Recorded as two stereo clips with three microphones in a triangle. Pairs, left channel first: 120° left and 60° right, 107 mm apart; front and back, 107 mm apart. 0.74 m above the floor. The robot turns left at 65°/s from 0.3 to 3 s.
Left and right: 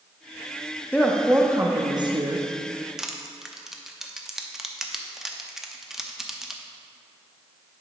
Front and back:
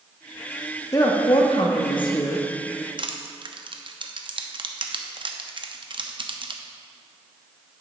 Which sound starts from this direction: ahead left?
A woman speaking, at 0.9 s.